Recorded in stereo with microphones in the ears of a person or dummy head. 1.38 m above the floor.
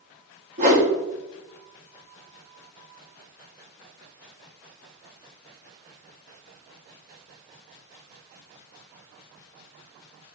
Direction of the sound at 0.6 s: 40° right (ahead or behind).